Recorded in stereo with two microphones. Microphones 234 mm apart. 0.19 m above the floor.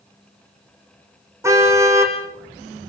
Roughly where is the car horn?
Centre.